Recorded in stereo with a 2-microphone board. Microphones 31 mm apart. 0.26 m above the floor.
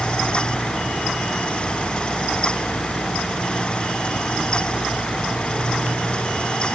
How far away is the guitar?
No guitar in this recording.